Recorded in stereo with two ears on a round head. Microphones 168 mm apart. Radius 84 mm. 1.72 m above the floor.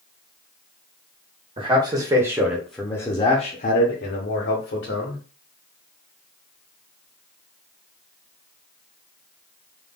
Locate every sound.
1.6 s a man speaking: 30° right (ahead or behind), 1.2 m; by 5.2 s 70° left (ahead or behind), 1.4 m